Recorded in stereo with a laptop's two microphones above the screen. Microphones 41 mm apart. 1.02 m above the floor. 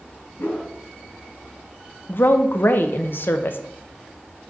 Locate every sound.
0.4 s a whoosh: 60° left (ahead or behind), 2.5 m
2.1 s a woman speaking: 55° left (ahead or behind), 0.6 m